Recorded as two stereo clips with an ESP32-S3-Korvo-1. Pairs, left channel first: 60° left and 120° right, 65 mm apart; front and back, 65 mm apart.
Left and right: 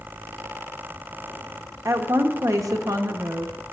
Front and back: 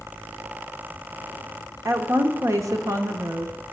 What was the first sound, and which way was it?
A woman speaking, 150° right.